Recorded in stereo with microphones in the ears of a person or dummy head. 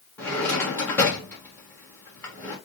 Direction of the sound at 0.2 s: 5° left (ahead or behind).